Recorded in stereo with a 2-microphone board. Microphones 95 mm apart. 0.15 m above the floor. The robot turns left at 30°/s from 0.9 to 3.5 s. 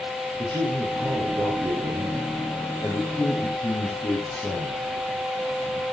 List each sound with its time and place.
0.4 s a man speaking: 125° right, 6 m; by 4.9 s 160° left, 6 m